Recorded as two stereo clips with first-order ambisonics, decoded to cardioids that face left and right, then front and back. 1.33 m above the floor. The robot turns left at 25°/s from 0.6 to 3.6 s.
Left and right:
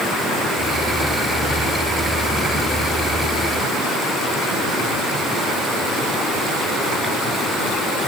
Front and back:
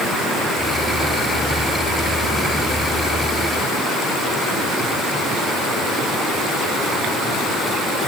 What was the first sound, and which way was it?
Only background noise.